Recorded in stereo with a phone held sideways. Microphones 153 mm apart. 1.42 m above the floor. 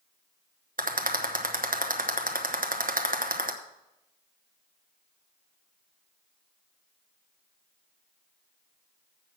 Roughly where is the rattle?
Right.